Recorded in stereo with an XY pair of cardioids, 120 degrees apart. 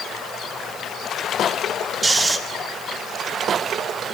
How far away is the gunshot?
No gunshot in this recording.